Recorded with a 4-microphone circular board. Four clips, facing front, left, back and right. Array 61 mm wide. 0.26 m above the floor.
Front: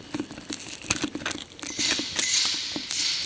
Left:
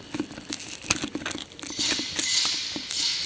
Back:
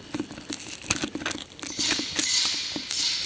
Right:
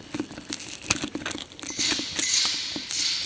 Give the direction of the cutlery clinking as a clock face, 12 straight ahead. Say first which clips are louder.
Right 1 dB, even; 1 o'clock.